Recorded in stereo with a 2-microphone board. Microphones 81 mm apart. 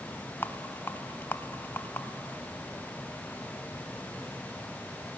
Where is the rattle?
25° left (ahead or behind), 0.7 m.